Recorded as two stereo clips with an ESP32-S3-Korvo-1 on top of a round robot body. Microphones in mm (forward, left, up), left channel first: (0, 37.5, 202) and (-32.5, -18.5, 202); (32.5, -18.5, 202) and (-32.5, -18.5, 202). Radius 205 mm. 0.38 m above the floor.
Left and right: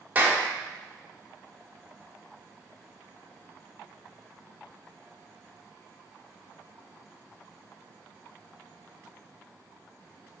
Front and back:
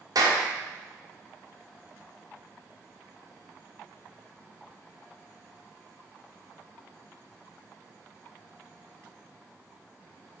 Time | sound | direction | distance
0.1 | a clap | 175° left | 2.5 m